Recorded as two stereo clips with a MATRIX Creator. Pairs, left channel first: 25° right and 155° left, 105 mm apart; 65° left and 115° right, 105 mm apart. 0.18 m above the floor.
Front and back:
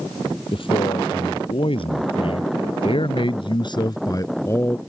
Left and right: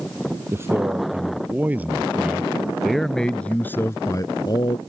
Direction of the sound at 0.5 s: 50° right.